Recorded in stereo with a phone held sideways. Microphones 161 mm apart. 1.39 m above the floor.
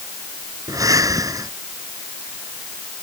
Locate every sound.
0.7 s breathing: 20° right (ahead or behind)